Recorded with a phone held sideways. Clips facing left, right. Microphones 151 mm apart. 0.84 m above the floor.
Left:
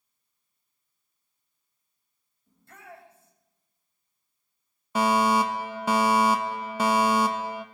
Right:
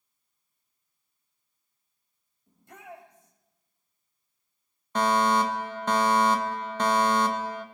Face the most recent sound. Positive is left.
turn(degrees=10)  # may be behind; listen again after turning